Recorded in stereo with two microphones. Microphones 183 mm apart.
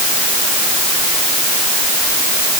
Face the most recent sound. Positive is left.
No sound to turn to.